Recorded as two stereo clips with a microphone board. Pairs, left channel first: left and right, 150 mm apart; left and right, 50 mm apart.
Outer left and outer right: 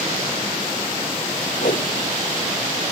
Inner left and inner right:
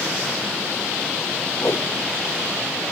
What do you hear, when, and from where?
1.6 s a whoosh: 75° left (ahead or behind)